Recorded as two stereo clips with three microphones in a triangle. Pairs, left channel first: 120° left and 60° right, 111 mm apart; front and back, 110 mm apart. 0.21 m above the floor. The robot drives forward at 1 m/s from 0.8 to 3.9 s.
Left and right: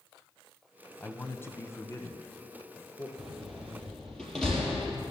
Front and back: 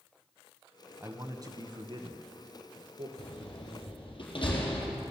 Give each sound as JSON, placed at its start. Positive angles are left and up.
{"t": 1.0, "sound": "a man speaking", "azimuth_deg": 165, "distance_m": 1.1}
{"t": 3.2, "sound": "a door slam", "azimuth_deg": 30, "distance_m": 4.0}